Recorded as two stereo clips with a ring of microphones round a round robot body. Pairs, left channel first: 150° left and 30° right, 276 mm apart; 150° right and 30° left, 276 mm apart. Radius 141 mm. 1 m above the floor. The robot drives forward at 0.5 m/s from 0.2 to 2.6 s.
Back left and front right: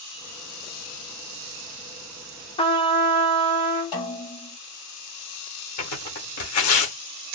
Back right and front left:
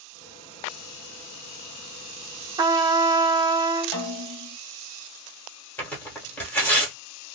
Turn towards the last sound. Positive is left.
turn(degrees=125)